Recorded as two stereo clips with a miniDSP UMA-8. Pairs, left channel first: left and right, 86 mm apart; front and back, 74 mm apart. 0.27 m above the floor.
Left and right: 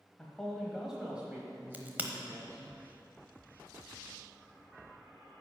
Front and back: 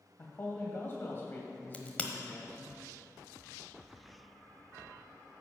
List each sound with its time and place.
0.2 s a man speaking: 20° left, 1.1 m; by 2.7 s 60° right, 1.5 m
1.7 s a crack: 50° right, 0.9 m